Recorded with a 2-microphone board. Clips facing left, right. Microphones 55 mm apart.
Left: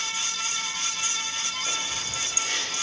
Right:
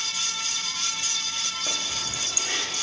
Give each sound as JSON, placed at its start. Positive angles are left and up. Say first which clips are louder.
{"t": 1.7, "sound": "keys jangling", "louder": "even", "side_deg": -20, "distance_m": 6.5}